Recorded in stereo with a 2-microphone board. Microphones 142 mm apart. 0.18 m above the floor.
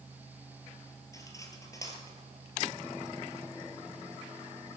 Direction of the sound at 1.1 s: 25° left (ahead or behind).